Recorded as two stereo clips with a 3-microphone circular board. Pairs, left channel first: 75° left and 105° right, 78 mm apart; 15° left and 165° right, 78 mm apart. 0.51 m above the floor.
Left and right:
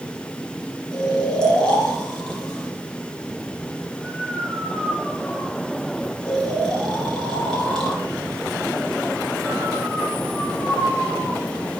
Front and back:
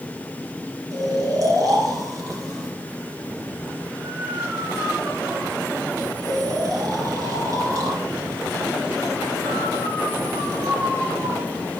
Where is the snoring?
155° left, 2.5 m.